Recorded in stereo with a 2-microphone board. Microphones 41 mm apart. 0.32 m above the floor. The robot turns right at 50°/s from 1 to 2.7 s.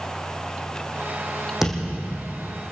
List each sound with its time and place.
1.6 s a thud: 10° right, 5.5 m; by 2.4 s 30° left, 5.5 m